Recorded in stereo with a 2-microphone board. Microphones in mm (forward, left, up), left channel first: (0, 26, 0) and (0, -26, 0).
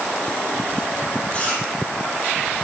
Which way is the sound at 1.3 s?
25° left (ahead or behind).